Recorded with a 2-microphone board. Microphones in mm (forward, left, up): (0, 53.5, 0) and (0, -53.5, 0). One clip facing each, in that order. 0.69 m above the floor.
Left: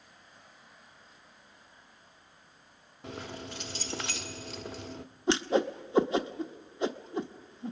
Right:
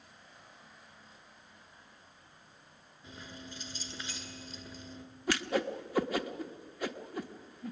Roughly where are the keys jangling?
Left.